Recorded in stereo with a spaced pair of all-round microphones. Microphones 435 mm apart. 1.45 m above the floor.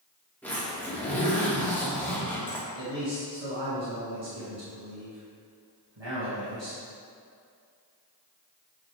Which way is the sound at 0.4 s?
5° left (ahead or behind).